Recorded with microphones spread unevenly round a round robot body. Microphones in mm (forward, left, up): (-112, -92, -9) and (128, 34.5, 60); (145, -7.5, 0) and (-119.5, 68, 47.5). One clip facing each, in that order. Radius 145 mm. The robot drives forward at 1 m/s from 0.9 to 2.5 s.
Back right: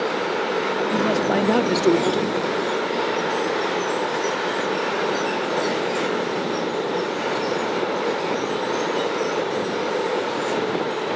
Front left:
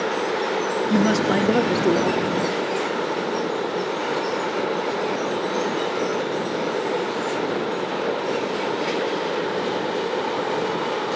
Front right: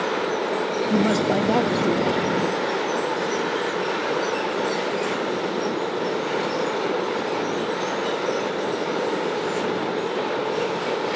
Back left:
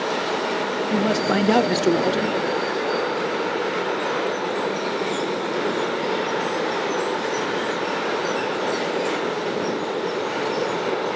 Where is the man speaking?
20° left; by 2.4 s 175° left.